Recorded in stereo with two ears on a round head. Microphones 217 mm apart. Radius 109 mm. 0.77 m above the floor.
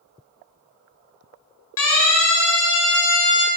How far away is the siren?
About 9 m.